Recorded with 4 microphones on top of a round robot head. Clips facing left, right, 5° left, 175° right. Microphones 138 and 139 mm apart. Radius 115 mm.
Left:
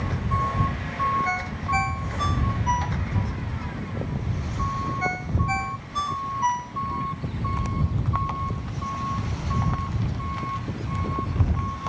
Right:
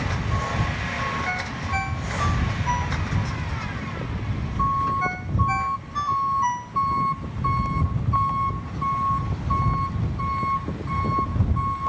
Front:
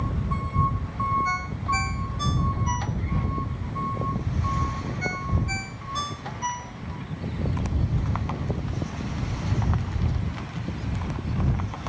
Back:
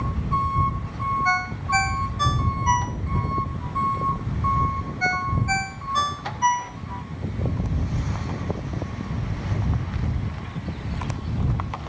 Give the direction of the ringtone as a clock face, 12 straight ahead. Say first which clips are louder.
Left 2 dB, back 4 dB; 7 o'clock.